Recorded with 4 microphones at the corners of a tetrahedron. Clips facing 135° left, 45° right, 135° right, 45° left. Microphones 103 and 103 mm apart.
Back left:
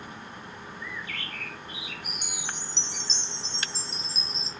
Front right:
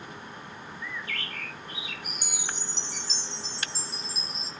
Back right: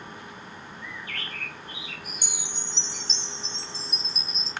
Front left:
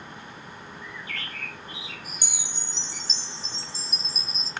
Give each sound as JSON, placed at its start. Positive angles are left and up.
{"t": 0.8, "sound": "a bird", "azimuth_deg": -95, "distance_m": 6.0}
{"t": 2.2, "sound": "a chime", "azimuth_deg": 85, "distance_m": 1.7}